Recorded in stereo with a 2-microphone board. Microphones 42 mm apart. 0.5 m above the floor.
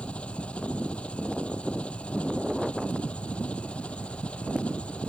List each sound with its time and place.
0.0 s an engine running: 30° left (ahead or behind)